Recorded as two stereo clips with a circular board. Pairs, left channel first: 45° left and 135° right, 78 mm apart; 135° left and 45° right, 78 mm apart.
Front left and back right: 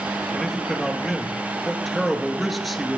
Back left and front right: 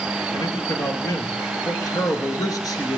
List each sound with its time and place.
0.3 s a man speaking: 135° left, 2.0 m